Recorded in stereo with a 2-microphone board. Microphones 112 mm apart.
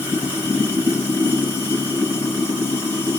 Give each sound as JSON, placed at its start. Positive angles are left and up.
{"t": 0.0, "sound": "running water", "side_deg": -15, "distance_m": 3.0}